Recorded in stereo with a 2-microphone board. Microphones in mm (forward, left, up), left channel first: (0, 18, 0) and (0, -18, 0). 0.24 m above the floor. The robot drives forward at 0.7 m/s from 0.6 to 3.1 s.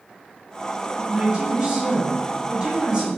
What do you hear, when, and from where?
1.0 s a woman speaking: 20° right (ahead or behind), 1.9 m; by 3.1 s 25° right (ahead or behind), 1.6 m